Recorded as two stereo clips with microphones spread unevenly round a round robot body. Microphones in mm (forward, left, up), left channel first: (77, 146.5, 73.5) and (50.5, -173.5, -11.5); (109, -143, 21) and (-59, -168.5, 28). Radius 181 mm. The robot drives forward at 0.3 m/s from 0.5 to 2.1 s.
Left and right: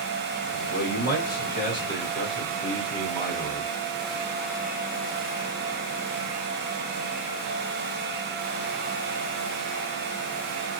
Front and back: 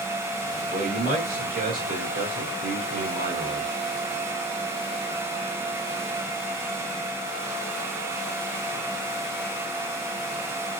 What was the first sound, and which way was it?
A man speaking, 150° left.